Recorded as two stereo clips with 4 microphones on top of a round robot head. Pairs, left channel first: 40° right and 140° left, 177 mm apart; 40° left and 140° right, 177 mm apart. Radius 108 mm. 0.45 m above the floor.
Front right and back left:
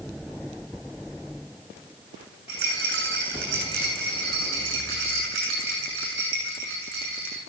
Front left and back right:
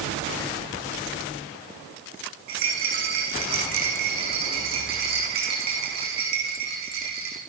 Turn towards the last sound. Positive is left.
turn(degrees=180)